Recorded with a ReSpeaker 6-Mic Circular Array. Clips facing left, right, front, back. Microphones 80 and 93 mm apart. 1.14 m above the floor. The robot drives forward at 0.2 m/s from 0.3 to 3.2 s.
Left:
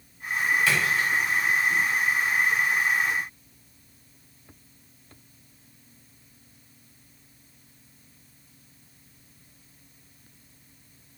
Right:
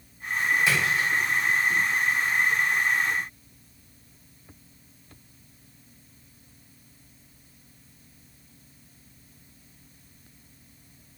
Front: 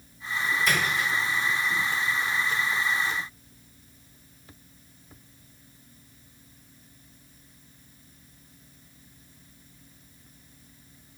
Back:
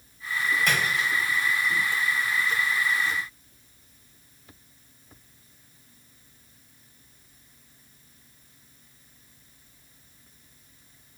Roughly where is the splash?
Behind.